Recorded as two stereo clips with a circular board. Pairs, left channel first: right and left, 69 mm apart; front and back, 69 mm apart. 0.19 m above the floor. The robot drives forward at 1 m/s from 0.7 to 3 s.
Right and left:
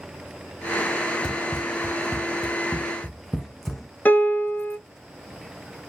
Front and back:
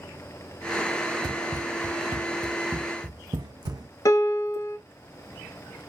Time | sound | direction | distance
1.2 | running footsteps | straight behind | 0.6 m
4.0 | a piano | 30° right | 0.7 m